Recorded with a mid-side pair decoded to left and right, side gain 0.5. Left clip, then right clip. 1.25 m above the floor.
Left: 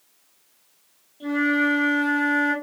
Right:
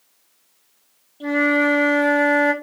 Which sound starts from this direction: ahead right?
A flute, at 1.2 s.